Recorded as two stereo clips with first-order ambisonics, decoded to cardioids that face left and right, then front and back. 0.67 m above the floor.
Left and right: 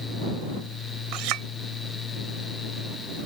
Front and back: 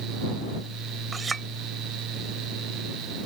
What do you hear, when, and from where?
1.1 s a clink: 105° right